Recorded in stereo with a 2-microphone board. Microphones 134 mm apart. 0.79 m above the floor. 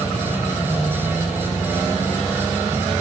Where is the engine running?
10° left (ahead or behind), 4.5 m.